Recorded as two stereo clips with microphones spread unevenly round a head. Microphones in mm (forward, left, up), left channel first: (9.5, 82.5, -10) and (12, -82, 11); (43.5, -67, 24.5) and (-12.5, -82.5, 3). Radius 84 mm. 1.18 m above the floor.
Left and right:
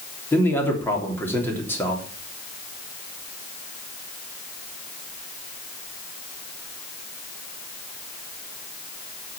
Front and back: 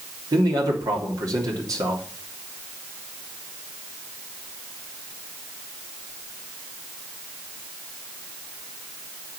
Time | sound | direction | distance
0.3 | a man speaking | 170° left | 3.5 m